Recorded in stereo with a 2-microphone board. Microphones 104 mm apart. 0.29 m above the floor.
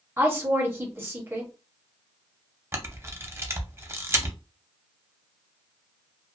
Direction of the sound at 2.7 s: 25° right (ahead or behind).